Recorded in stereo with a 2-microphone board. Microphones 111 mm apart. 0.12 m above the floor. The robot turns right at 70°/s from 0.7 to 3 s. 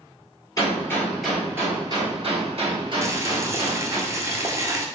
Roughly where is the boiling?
Right.